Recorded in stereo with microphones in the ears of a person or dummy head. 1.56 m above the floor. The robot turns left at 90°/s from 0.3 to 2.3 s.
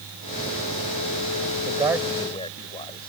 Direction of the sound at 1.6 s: 150° right.